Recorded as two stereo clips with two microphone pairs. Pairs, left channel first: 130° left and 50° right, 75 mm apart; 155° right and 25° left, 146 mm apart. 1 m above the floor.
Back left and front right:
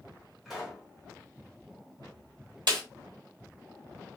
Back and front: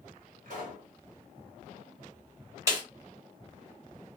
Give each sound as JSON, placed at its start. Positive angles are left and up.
{"t": 0.5, "sound": "a pop", "azimuth_deg": 40, "distance_m": 1.5}
{"t": 2.7, "sound": "a snare drum", "azimuth_deg": -40, "distance_m": 1.9}